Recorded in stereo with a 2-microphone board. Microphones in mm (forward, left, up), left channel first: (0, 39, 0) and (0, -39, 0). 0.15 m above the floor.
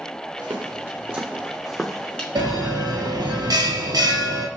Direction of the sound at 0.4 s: 45° right (ahead or behind).